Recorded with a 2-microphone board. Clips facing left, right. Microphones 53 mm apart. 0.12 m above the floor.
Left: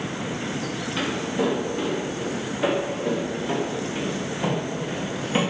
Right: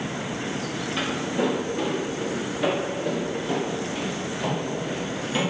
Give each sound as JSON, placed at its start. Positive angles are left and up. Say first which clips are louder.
{"t": 1.0, "sound": "footsteps", "louder": "even", "side_deg": -5, "distance_m": 3.5}